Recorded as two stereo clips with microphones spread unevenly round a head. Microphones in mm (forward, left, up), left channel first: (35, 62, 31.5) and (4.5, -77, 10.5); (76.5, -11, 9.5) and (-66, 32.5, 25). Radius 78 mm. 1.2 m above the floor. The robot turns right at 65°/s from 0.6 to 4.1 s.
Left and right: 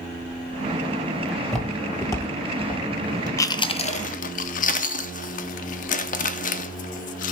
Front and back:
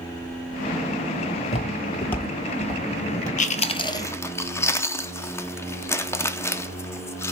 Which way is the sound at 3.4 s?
5° left.